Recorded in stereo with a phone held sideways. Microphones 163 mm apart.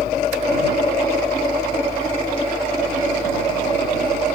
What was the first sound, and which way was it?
A fan, 60° left (ahead or behind).